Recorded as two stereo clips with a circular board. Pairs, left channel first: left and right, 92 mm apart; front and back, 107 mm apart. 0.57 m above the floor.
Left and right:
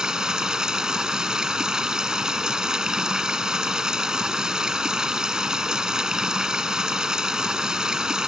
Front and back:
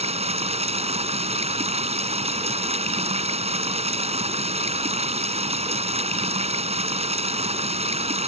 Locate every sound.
0.0 s running water: 175° right